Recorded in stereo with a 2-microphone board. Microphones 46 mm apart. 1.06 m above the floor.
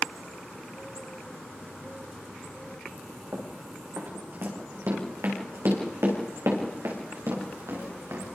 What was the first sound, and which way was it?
Running footsteps, 50° right (ahead or behind).